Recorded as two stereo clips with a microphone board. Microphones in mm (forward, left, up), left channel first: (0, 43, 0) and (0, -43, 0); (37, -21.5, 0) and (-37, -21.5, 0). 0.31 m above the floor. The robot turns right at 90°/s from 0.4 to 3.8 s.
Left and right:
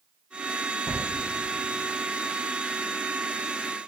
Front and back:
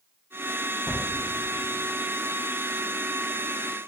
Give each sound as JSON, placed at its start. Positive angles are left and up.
{"t": 0.9, "sound": "a gunshot", "azimuth_deg": -65, "distance_m": 1.0}